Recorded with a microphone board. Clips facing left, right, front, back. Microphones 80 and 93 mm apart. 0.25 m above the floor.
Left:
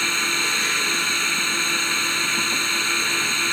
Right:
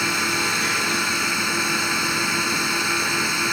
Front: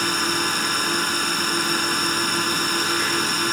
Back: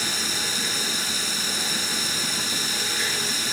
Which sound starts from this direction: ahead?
A drone, at 0.0 s.